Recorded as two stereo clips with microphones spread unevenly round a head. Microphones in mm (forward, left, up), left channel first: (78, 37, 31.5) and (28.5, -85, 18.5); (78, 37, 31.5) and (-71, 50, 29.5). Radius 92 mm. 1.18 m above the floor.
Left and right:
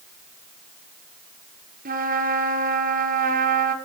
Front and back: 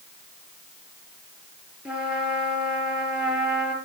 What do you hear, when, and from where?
1.9 s a trumpet: 100° right, 4 m